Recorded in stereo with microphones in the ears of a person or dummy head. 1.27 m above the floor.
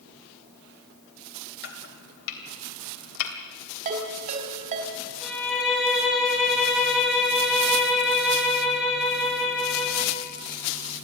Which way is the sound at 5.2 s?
5° left (ahead or behind).